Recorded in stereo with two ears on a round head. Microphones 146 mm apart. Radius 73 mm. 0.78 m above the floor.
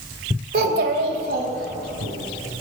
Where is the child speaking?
65° right (ahead or behind), 2 m; by 2.1 s 70° right (ahead or behind), 4.5 m.